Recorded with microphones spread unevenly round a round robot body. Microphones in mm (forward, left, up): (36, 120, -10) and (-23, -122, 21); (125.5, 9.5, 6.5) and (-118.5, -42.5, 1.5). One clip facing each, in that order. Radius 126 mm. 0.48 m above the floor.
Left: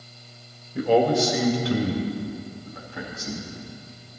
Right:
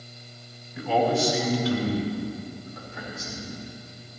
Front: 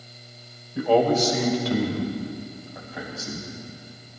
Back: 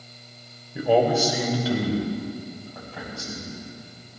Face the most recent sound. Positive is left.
turn(degrees=95)